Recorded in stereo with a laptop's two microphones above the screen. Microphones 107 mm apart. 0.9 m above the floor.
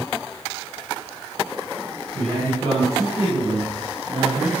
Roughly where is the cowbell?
No cowbell in this recording.